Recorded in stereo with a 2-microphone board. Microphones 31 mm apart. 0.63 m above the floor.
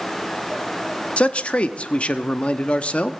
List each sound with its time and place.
1.2 s a man speaking: 35° left (ahead or behind), 0.7 m